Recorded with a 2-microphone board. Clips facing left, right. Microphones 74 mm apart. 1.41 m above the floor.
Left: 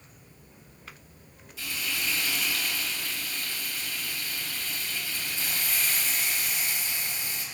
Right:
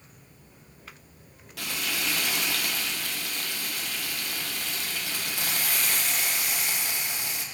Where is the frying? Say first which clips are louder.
Right 2 dB; 70° right (ahead or behind), 1.0 m.